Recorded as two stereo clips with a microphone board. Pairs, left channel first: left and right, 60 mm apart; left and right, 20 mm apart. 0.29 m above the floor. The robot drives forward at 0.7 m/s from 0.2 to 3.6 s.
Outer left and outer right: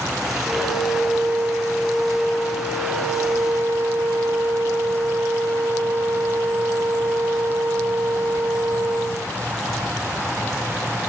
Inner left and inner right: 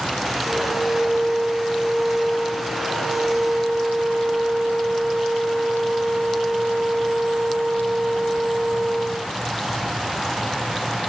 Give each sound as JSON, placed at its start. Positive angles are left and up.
{"t": 0.4, "sound": "a flute", "side_deg": -50, "distance_m": 9.0}